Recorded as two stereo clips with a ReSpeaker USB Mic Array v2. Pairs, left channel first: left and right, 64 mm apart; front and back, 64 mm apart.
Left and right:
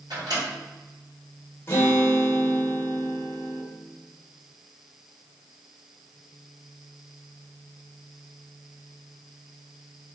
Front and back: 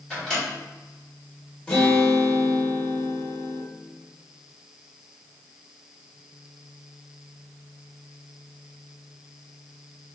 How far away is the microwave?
About 1.7 m.